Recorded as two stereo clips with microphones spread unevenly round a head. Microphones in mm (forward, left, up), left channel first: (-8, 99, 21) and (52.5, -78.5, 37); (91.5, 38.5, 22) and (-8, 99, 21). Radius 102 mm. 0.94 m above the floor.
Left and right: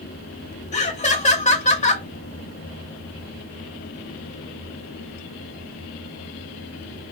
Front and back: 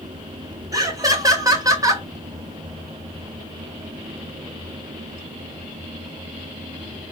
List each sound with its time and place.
0.7 s laughter: 105° left, 0.9 m